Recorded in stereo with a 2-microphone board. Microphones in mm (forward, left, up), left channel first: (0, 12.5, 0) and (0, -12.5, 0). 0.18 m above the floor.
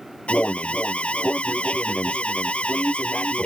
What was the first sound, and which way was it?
An alarm, 55° left (ahead or behind).